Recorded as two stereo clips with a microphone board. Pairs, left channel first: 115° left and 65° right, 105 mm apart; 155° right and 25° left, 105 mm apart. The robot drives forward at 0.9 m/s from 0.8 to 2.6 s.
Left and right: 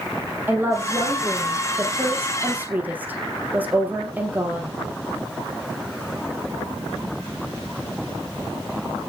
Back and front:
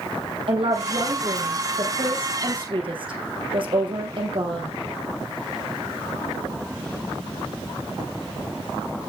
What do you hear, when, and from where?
0.5 s a woman speaking: straight ahead, 3.5 m; by 4.7 s 5° left, 2.5 m